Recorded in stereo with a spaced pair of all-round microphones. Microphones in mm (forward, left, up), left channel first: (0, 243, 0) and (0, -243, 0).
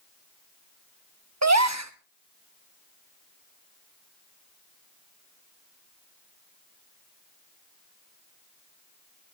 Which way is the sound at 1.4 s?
35° right (ahead or behind).